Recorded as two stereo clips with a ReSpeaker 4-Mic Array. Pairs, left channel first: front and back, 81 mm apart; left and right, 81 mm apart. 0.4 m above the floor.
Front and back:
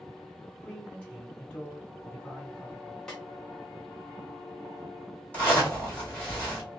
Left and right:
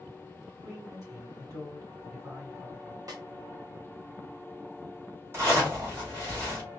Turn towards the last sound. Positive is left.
turn(degrees=-55)